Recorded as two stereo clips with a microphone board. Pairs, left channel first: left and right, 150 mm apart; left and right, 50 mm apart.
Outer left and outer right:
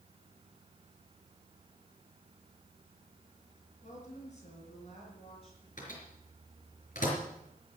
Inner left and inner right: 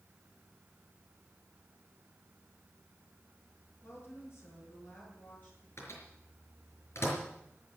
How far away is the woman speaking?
About 5 m.